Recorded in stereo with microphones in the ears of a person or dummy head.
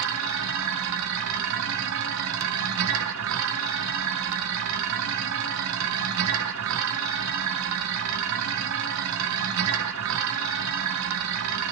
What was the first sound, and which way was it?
A machine running, 80° right.